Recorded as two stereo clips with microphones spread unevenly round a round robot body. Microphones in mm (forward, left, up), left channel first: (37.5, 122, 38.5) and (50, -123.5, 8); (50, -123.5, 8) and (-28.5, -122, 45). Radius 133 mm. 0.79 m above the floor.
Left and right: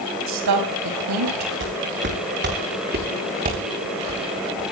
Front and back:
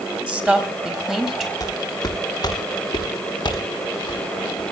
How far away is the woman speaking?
About 5.5 m.